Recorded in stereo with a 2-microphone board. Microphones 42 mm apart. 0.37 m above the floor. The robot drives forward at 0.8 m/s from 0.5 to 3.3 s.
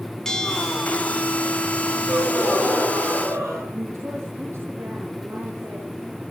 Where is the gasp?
75° right (ahead or behind), 9 m; by 3.6 s 80° right, 9 m.